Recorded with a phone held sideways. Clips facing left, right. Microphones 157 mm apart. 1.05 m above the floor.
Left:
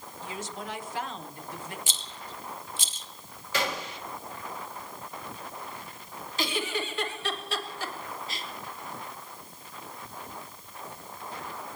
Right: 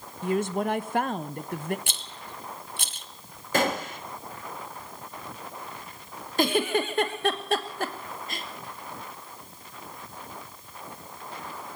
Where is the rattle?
60° right (ahead or behind), 0.8 m.